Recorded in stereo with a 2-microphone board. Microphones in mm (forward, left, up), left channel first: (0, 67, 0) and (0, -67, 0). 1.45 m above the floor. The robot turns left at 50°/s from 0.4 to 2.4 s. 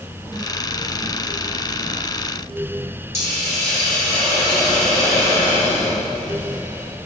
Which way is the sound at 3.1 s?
20° left (ahead or behind).